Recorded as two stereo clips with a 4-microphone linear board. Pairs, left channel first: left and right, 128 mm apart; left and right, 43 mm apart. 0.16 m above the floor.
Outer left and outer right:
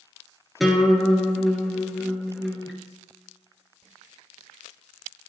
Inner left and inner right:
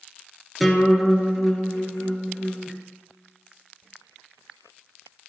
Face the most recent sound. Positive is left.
turn(degrees=0)  # may be behind; listen again after turning